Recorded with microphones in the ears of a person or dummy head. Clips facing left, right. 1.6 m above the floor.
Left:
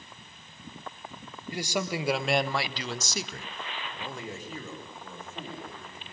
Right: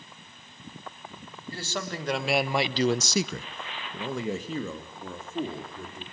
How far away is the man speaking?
About 2.5 m.